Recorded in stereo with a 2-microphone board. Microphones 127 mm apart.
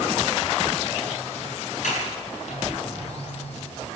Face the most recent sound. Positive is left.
turn(degrees=70)  # may be behind; listen again after turning